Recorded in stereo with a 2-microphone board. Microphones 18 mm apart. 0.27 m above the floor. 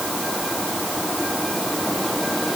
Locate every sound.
Only background noise.